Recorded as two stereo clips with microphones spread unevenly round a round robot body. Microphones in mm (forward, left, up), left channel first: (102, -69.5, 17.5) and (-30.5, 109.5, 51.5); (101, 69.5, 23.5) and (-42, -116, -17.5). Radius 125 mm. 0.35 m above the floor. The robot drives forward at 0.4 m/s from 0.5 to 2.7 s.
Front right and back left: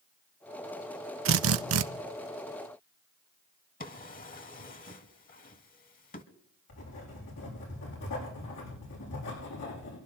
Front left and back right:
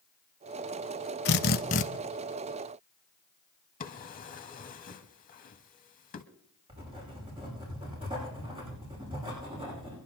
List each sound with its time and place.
1.2 s a drill: 100° left, 0.8 m; by 1.9 s 120° left, 0.8 m
3.8 s a drawer: 5° right, 1.7 m
6.7 s writing: 60° right, 9 m